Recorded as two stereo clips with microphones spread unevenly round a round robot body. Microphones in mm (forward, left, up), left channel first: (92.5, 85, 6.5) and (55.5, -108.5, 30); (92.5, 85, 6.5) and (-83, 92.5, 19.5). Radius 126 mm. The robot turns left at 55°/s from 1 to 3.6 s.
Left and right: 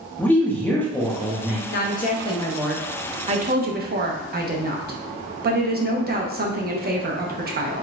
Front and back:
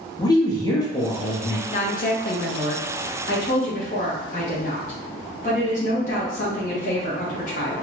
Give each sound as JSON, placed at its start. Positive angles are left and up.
{"t": 0.2, "sound": "a woman speaking", "azimuth_deg": 20, "distance_m": 0.7}
{"t": 1.7, "sound": "a woman speaking", "azimuth_deg": 50, "distance_m": 0.8}